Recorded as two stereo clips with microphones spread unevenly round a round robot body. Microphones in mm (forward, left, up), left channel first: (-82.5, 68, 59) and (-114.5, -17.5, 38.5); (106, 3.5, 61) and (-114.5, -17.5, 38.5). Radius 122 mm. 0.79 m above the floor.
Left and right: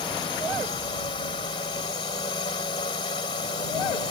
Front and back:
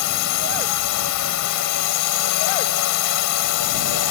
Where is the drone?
5° left.